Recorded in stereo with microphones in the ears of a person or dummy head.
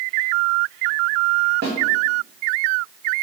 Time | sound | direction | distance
1.6 | a snare drum | 55° right (ahead or behind) | 0.8 m